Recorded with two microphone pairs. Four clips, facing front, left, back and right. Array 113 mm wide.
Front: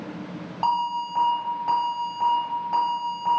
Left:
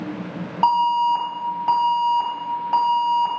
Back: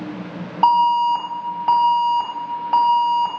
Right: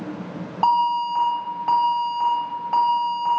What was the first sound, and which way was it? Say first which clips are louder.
An alarm: left 2 dB, back 10 dB; 165° right.